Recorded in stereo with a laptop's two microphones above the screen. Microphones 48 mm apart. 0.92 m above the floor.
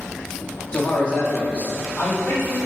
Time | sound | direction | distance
0.7 | a man speaking | 20° left (ahead or behind) | 1.6 m